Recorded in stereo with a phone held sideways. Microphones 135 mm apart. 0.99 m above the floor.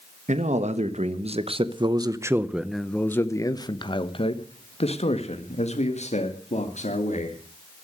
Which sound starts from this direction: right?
A man speaking, at 0.3 s.